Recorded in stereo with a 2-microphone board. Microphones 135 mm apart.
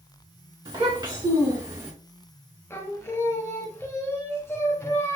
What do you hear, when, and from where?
0.7 s a child speaking: 40° right (ahead or behind), 2 m; by 1.9 s 15° right (ahead or behind), 1.4 m
2.7 s singing: 20° left (ahead or behind), 0.6 m